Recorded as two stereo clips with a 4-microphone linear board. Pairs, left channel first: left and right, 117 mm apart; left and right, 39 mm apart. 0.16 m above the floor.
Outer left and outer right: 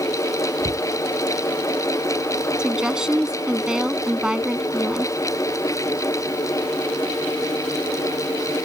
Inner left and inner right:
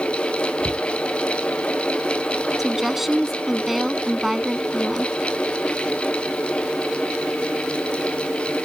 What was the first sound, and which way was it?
A cupboard door, 60° right (ahead or behind).